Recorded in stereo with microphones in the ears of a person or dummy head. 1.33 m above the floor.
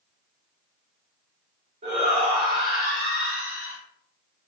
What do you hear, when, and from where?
1.8 s a shout: 40° right (ahead or behind), 1.5 m